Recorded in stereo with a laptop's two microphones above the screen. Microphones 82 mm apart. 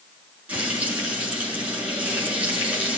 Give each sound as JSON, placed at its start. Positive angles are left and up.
{"t": 0.5, "sound": "frying", "side_deg": -15, "distance_m": 6.5}